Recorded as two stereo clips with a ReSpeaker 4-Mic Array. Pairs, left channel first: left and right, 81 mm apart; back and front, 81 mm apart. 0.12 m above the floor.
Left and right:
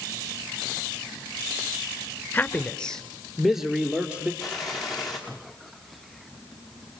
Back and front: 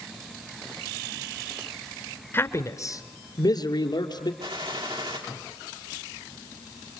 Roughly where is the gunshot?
Ahead.